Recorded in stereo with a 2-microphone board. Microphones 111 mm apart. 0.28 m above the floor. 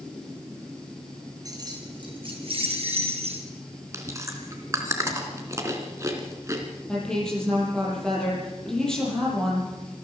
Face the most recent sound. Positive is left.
turn(degrees=5)  # may be behind; listen again after turning